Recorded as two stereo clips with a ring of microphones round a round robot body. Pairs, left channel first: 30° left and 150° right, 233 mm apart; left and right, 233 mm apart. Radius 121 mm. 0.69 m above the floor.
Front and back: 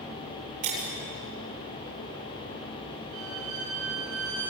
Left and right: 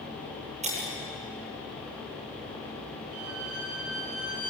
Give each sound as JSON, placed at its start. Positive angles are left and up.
{"t": 0.6, "sound": "breaking glass", "azimuth_deg": -155, "distance_m": 8.5}
{"t": 3.1, "sound": "a violin", "azimuth_deg": -120, "distance_m": 6.5}